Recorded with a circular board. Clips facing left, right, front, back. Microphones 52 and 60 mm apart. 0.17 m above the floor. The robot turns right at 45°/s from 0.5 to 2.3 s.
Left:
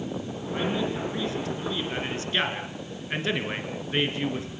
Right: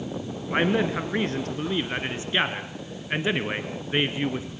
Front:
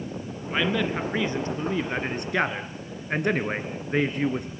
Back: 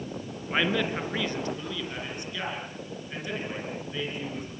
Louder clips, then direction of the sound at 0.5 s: Right 5 dB, front 1 dB; 100° right.